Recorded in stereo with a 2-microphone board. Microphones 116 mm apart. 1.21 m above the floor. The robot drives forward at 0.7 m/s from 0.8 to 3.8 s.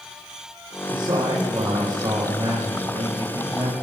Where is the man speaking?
40° right (ahead or behind), 4 m; by 3.7 s 30° right (ahead or behind), 5.5 m.